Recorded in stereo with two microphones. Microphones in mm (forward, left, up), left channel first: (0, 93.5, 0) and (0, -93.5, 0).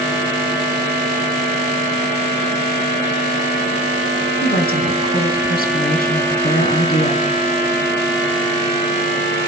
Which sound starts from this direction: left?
A woman speaking, at 4.4 s.